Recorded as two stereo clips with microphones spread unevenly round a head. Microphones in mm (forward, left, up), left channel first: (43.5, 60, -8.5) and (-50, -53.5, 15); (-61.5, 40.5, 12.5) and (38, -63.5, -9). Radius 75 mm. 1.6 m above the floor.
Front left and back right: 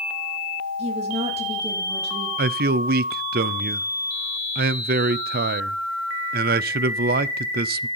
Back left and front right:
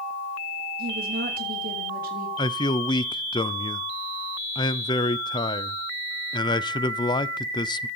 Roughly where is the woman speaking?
Right.